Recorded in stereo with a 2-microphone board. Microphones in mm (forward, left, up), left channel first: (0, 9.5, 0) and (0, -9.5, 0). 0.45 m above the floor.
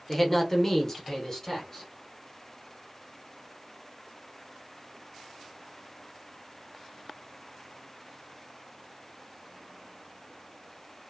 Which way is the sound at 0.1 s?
15° left (ahead or behind).